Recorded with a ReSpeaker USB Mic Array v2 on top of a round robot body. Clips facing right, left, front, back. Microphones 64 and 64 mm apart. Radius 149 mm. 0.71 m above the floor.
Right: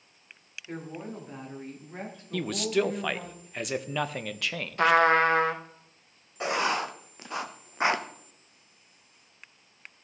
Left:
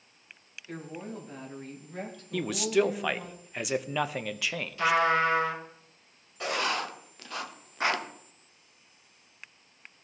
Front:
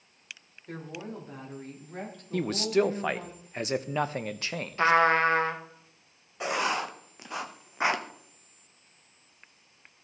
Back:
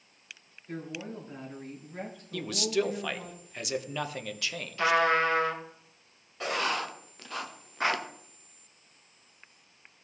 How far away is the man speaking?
About 0.7 m.